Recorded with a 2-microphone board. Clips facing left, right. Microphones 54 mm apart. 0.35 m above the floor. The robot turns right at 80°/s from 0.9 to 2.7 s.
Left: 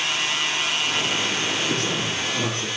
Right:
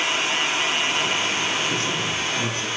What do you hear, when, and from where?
1.7 s a man speaking: 70° left, 6.5 m; by 2.7 s 145° left, 6.5 m